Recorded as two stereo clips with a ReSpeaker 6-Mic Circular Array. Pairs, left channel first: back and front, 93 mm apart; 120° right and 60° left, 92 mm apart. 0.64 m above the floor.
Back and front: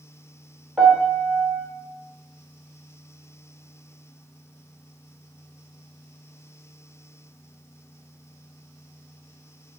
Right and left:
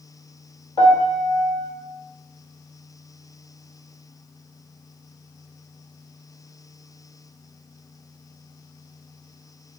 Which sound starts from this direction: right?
A piano, at 0.8 s.